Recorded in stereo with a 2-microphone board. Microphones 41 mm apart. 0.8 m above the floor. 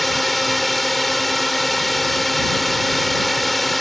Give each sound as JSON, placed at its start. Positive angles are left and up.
{"t": 0.0, "sound": "a drone", "side_deg": 0}